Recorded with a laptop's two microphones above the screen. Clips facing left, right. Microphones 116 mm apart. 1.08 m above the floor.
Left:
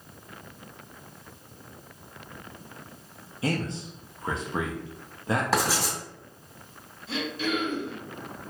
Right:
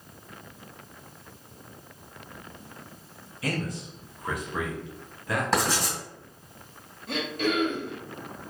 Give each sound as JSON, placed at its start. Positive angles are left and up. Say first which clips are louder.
{"t": 3.4, "sound": "a man speaking", "louder": "left 2 dB", "side_deg": 25, "distance_m": 0.5}
{"t": 5.5, "sound": "writing", "louder": "even", "side_deg": 5, "distance_m": 2.0}
{"t": 7.1, "sound": "throat clearing", "louder": "right 2 dB", "side_deg": -55, "distance_m": 0.9}